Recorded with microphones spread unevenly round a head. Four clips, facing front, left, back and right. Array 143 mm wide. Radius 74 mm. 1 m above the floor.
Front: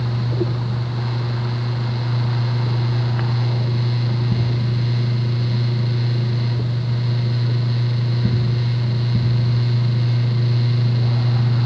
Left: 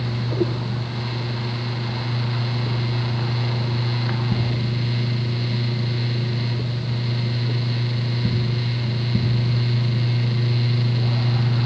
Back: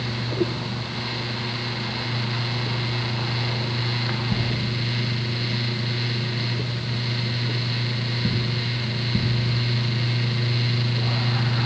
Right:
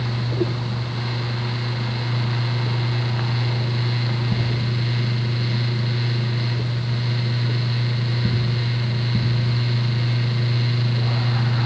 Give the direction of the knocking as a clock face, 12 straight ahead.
No knocking in this recording.